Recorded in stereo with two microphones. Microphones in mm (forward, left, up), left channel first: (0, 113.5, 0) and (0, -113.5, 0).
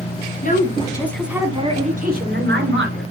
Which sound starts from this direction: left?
A woman speaking, at 0.4 s.